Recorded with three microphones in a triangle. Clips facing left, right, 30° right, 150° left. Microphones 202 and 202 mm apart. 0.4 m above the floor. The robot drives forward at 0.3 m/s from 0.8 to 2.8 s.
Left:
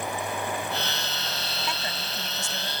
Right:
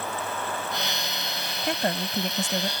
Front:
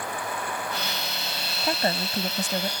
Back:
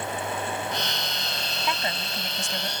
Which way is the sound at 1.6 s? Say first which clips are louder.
Right 7 dB, front 6 dB; 70° right.